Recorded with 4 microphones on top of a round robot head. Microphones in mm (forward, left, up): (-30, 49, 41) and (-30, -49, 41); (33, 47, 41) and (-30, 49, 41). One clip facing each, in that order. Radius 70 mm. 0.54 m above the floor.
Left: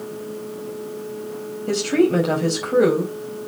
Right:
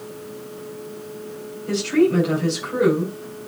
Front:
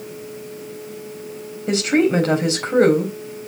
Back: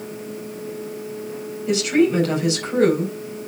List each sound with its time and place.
1.7 s a woman speaking: 45° left, 4 m